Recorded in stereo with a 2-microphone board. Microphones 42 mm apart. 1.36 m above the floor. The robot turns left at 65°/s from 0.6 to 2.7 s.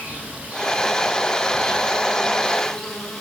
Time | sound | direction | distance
0.0 | an insect | 50° right | 8 m